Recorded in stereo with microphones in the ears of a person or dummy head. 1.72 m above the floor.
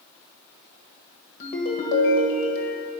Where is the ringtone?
50° left (ahead or behind), 1.2 m.